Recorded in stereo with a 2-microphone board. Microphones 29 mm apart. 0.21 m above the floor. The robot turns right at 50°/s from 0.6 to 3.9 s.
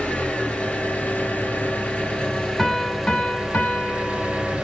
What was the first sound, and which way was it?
An engine running, 60° left.